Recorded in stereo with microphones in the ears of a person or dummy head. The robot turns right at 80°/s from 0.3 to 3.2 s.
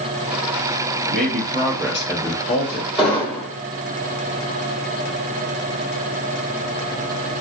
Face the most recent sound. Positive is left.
turn(degrees=20)  # may be behind; listen again after turning